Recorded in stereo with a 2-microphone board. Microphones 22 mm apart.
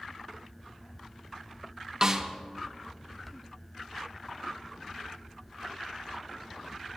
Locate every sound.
2.0 s a snare drum: 25° right (ahead or behind), 1.2 m